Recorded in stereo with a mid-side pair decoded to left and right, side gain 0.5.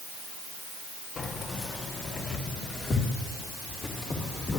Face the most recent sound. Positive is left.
turn(degrees=35)